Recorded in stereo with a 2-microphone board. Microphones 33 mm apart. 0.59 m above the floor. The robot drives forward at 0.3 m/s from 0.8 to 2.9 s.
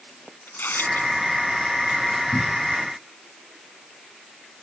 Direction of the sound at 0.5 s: 85° left.